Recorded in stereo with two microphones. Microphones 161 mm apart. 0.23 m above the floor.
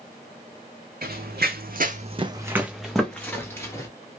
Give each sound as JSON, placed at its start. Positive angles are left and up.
{"t": 1.0, "sound": "running footsteps", "side_deg": -70, "distance_m": 0.9}